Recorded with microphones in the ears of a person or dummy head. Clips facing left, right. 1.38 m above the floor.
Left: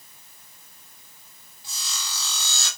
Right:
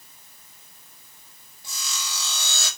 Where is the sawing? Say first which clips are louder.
Right 2 dB; 50° right (ahead or behind), 6.5 m.